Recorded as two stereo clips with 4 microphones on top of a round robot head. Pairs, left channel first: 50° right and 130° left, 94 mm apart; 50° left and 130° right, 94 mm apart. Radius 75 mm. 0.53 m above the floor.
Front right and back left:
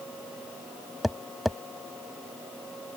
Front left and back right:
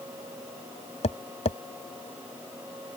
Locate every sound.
1.0 s tapping: 45° left